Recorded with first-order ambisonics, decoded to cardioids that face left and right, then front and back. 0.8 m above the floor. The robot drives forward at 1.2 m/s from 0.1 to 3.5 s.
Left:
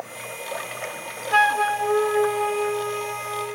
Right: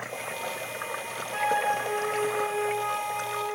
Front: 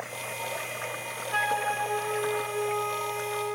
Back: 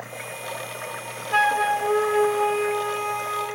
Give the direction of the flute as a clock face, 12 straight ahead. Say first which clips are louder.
Left 7 dB, back 7 dB; 8 o'clock.